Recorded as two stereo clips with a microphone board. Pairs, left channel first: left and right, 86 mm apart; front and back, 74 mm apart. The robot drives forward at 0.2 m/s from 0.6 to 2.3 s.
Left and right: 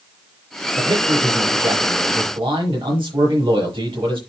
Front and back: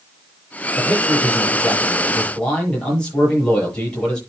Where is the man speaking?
75° right, 8 m.